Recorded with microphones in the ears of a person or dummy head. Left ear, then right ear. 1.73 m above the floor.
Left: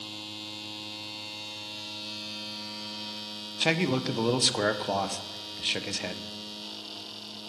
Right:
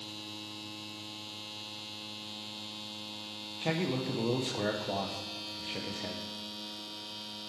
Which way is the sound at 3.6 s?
50° left (ahead or behind).